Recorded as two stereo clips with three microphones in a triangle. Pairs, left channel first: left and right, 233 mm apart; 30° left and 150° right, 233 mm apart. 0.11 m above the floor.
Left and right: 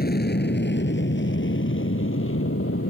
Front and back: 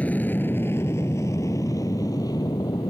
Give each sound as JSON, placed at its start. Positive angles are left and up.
{"t": 0.0, "sound": "an aircraft", "azimuth_deg": 110}